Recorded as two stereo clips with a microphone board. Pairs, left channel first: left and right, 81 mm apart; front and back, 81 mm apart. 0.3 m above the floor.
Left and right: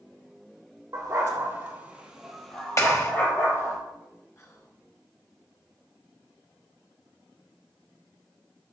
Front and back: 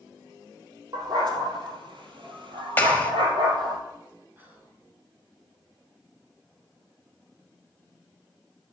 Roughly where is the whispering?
Behind left.